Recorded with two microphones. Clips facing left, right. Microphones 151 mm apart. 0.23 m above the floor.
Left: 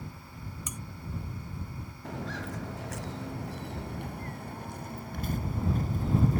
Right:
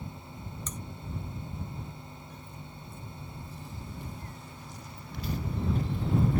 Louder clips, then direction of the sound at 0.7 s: Right 2 dB; 10° left (ahead or behind).